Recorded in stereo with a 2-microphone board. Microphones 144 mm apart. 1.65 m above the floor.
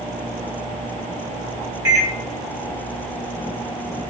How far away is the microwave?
About 1.2 m.